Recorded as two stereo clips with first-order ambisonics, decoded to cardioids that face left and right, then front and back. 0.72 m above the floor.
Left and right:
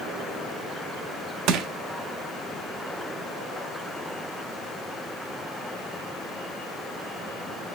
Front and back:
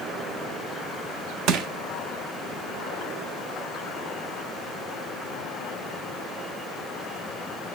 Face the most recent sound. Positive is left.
turn(degrees=-135)